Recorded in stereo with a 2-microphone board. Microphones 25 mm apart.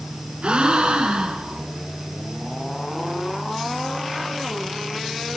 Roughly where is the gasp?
Right.